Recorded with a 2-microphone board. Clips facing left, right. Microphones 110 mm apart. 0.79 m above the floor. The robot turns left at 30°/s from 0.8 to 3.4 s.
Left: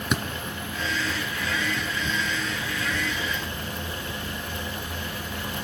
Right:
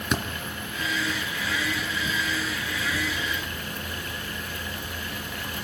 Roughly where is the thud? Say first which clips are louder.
Even; centre.